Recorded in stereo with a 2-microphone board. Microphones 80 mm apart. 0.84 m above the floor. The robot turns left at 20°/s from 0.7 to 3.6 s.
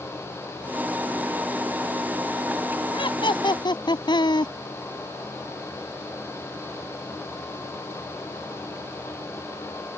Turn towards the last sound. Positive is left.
turn(degrees=65)  # may be behind; listen again after turning